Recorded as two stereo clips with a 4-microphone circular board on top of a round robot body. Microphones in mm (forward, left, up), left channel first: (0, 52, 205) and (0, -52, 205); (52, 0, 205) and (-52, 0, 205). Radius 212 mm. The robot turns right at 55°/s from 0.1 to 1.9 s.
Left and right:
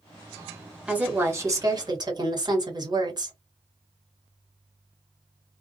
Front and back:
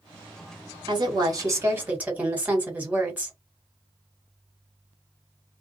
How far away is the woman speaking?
About 1.9 m.